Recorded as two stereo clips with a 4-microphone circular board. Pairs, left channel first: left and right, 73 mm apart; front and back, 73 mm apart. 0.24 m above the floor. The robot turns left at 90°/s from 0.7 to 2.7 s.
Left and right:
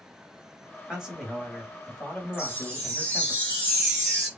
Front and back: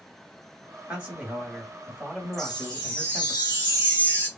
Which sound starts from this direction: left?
A chime, at 2.3 s.